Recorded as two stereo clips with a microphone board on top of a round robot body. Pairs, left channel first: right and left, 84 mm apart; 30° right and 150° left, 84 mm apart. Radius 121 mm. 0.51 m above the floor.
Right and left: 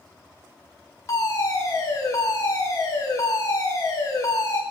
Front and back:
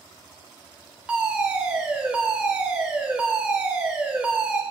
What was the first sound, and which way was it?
A fire alarm, 135° right.